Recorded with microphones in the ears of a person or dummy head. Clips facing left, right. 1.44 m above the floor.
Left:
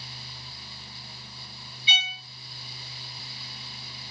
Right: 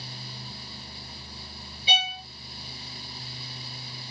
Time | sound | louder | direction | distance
1.9 | a violin | right 8 dB | 35° right (ahead or behind) | 0.7 m